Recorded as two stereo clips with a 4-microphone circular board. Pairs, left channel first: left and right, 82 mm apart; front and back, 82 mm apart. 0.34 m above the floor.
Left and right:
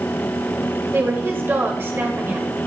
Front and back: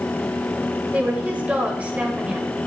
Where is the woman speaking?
120° right, 1.3 m.